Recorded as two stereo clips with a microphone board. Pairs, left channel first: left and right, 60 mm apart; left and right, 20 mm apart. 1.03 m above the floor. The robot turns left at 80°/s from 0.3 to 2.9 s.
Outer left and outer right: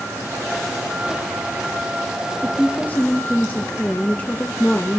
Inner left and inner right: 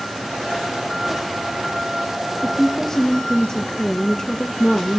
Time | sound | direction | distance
2.4 | a woman speaking | 170° right | 0.7 m